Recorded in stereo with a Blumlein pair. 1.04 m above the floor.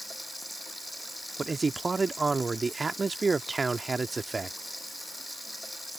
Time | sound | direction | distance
0.0 | running water | straight ahead | ?
1.4 | a man speaking | 10° right | ?